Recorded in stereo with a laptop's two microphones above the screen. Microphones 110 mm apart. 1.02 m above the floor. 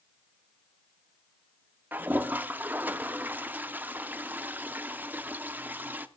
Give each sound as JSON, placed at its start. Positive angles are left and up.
{"t": 1.9, "sound": "a toilet flushing", "side_deg": -15, "distance_m": 0.5}